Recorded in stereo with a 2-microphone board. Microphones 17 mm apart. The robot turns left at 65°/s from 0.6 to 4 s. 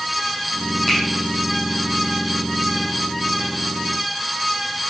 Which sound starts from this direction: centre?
A finger snap, at 0.9 s.